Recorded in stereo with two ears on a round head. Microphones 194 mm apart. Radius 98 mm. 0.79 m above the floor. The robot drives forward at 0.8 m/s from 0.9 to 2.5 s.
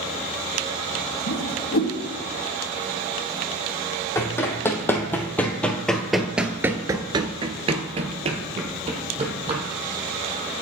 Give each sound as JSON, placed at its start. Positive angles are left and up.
{"t": 1.3, "sound": "a whoosh", "side_deg": 85, "distance_m": 1.6}
{"t": 4.2, "sound": "running footsteps", "side_deg": 15, "distance_m": 2.0}